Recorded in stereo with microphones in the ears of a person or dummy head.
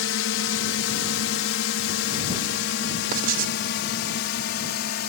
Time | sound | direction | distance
0.0 | a drone | 75° left (ahead or behind) | ?
3.1 | writing | 50° right (ahead or behind) | ?